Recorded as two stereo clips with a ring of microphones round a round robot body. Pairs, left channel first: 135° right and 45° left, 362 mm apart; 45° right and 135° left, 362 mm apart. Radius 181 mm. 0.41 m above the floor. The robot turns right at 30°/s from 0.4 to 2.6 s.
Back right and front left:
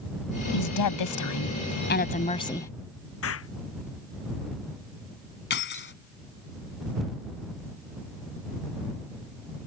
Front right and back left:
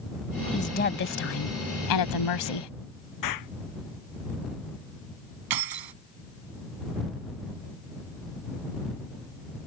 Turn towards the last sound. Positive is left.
turn(degrees=165)